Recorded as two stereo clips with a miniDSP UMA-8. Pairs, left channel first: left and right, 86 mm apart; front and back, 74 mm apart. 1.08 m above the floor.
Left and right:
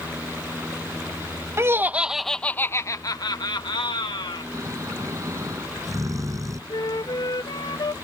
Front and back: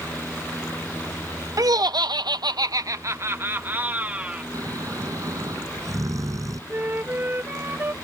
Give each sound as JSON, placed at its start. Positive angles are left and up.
{"t": 1.6, "sound": "laughter", "azimuth_deg": -145}
{"t": 4.5, "sound": "snoring", "azimuth_deg": -140}
{"t": 6.7, "sound": "a flute", "azimuth_deg": 120}